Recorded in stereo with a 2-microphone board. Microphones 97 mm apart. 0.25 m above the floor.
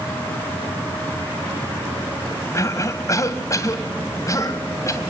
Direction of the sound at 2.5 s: 35° left (ahead or behind).